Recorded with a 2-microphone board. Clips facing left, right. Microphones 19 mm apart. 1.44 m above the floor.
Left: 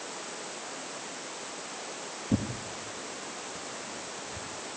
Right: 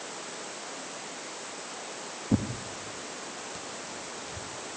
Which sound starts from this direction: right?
Tearing paper, at 2.3 s.